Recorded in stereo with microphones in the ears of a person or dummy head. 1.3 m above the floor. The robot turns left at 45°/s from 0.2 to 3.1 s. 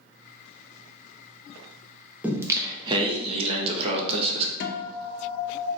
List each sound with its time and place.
2.2 s singing: 10° right, 0.6 m; by 4.5 s 50° right, 0.6 m
4.6 s a guitar: 55° left (ahead or behind), 0.6 m